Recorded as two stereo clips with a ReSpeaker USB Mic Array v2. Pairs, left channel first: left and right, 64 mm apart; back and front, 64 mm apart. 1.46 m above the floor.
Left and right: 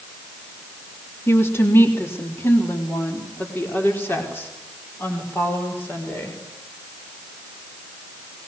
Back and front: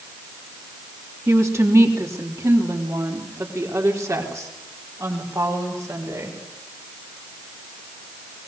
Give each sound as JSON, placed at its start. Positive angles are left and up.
{"t": 1.3, "sound": "a woman speaking", "azimuth_deg": 40, "distance_m": 3.0}